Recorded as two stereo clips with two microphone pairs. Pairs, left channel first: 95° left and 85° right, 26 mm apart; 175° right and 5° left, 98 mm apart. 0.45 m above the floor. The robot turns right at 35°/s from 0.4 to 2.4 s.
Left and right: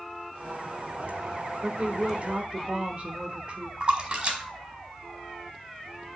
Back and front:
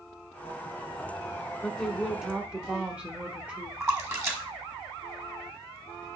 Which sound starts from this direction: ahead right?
A splash, at 3.8 s.